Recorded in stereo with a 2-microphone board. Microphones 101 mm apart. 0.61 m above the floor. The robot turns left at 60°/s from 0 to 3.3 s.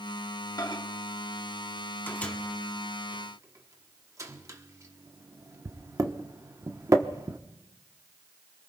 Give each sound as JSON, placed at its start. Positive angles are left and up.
{"t": 0.6, "sound": "a microwave", "side_deg": 40, "distance_m": 1.0}